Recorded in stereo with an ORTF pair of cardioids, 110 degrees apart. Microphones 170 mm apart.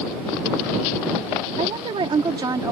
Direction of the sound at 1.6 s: 40° right.